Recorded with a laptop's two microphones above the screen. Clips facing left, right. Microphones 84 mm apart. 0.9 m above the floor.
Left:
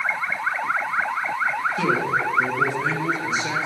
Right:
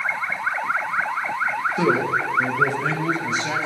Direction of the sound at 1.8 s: 25° right (ahead or behind).